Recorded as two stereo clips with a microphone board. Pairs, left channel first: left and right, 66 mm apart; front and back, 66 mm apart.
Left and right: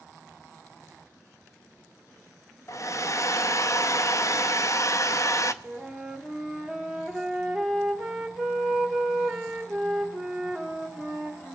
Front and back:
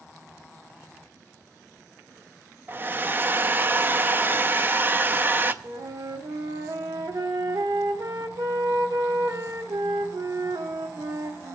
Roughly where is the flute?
Behind.